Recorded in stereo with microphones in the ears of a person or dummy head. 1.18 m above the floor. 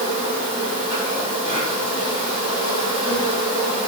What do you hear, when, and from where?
0.0 s an insect: 35° right (ahead or behind), 5.5 m